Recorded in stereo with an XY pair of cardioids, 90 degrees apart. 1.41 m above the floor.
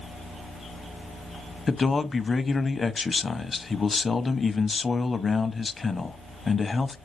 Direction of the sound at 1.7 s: 35° left.